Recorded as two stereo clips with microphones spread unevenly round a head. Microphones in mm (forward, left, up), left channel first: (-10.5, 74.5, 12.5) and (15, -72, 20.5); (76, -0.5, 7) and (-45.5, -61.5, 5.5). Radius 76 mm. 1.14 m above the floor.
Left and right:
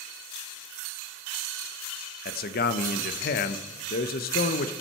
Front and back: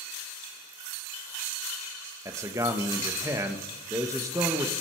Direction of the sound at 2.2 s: 135° left.